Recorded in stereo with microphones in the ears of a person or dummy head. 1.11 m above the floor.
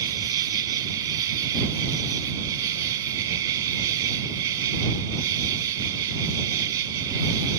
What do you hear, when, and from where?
0.0 s an insect: 25° right (ahead or behind)